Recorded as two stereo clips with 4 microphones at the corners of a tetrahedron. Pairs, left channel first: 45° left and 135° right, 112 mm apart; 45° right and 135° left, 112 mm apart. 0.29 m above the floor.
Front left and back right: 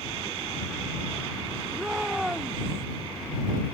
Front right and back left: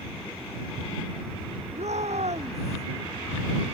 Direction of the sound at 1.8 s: 140° left.